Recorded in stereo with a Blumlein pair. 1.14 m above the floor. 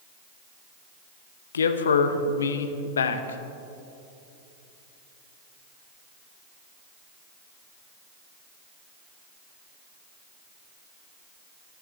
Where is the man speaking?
70° left, 1.0 m.